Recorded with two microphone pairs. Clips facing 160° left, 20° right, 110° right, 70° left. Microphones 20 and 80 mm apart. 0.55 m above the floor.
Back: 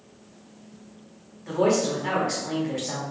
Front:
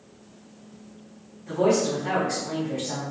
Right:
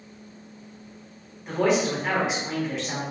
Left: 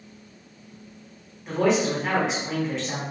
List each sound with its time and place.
1.5 s a man speaking: 165° left, 2.0 m